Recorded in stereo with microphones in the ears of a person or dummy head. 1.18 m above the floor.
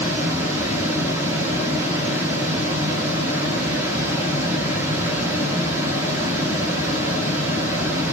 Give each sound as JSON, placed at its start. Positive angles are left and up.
{"t": 0.0, "sound": "running water", "side_deg": -15, "distance_m": 1.0}